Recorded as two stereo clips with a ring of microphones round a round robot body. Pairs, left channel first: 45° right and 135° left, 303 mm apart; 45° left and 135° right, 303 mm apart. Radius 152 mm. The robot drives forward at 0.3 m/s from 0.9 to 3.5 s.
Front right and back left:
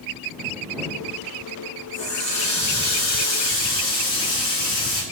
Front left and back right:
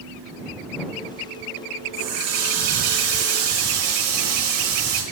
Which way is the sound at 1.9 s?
95° right.